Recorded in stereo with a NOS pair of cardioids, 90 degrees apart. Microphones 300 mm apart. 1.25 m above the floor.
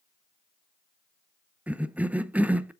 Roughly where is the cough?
Ahead.